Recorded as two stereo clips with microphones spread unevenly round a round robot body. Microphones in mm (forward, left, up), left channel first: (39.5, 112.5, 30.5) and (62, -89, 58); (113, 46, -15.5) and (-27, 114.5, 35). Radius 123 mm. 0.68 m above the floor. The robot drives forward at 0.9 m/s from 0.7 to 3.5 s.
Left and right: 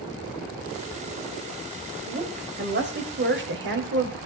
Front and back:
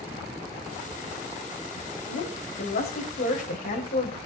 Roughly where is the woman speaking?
Ahead right.